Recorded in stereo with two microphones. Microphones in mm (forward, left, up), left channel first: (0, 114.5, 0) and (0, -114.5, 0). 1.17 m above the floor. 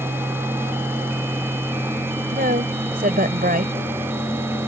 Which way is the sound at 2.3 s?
40° right (ahead or behind).